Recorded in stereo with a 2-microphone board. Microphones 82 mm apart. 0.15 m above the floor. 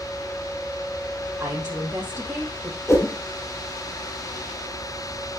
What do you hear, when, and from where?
1.4 s a woman speaking: 25° right (ahead or behind), 4 m
2.9 s a whoosh: 35° left (ahead or behind), 2.5 m